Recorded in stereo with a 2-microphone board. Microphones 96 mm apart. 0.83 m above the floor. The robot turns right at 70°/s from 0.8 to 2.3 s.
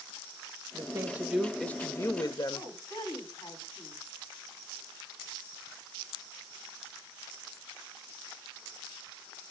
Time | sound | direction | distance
0.7 | a woman speaking | 45° right | 0.7 m
2.5 | a woman speaking | 45° left (ahead or behind) | 5.5 m